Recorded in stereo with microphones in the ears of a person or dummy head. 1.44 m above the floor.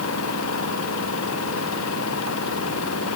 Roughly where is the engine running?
Left.